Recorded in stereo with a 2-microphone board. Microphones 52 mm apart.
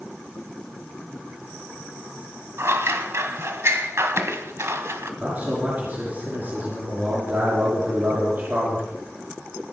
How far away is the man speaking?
About 5 m.